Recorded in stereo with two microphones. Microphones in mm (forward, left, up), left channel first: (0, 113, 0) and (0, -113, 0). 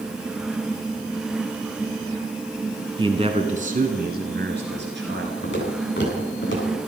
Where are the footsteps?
55° left (ahead or behind), 8.5 m; by 6.8 s 50° left (ahead or behind), 10 m.